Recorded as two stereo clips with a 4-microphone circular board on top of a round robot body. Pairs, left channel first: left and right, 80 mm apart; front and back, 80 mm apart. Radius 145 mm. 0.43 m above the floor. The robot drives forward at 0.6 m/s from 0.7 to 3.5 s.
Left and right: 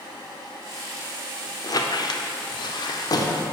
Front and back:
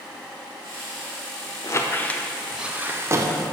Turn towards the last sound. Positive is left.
turn(degrees=135)